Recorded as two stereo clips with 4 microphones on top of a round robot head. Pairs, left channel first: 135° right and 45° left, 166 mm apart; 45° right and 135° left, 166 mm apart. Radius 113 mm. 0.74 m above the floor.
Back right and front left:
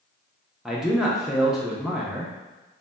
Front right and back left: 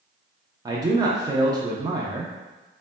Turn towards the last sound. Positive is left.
turn(degrees=130)